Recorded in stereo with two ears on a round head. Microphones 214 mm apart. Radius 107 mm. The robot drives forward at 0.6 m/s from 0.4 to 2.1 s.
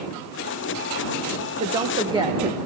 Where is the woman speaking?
20° right (ahead or behind), 1.1 m.